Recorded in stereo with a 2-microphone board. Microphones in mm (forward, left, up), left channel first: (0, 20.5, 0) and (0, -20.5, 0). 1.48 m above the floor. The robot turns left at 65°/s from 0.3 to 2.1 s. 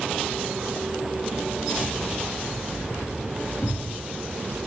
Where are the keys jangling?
60° left (ahead or behind), 1.7 m; by 4.6 s 80° left, 1.7 m.